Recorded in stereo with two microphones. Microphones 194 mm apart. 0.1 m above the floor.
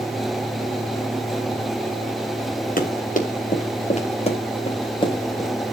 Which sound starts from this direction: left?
Running footsteps, at 2.8 s.